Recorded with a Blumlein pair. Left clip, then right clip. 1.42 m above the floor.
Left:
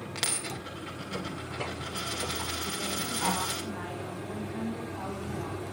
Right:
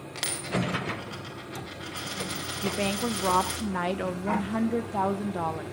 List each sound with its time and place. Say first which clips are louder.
0.1 s a dropped coin: right 3 dB; straight ahead, 2.5 m
2.6 s a woman speaking: right 4 dB; 45° right, 1.3 m